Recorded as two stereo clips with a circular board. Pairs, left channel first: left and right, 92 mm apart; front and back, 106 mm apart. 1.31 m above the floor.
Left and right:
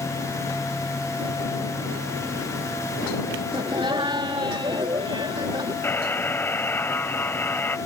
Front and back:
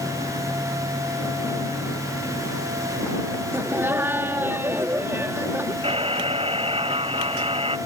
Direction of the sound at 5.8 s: 155° left.